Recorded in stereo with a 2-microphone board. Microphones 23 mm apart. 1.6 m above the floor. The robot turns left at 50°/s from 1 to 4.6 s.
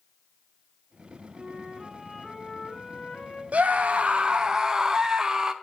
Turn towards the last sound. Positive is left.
turn(degrees=-155)